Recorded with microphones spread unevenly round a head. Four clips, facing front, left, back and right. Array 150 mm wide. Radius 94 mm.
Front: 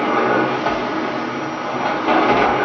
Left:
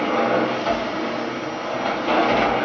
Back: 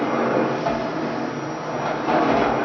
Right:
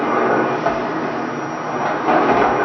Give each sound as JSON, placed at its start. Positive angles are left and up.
{"t": 0.0, "sound": "a machine running", "azimuth_deg": -90, "distance_m": 0.8}